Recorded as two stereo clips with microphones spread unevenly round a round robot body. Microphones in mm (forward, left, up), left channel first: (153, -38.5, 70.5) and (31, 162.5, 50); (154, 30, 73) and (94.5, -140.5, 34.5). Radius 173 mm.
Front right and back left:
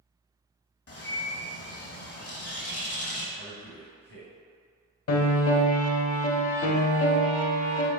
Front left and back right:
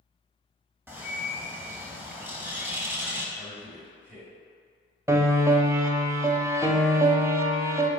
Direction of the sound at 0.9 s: 35° right.